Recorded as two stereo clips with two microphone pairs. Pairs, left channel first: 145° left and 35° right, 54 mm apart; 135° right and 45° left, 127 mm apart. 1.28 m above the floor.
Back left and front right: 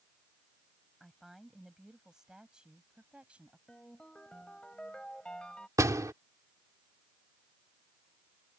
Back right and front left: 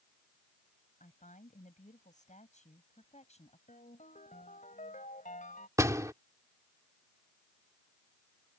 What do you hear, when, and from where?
1.0 s a woman speaking: 120° right; by 3.6 s 100° right
3.7 s a ringtone: 140° right
5.8 s a door slam: 20° right